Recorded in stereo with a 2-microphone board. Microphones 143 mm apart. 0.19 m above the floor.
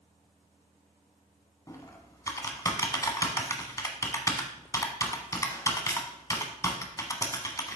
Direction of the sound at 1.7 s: 25° left (ahead or behind).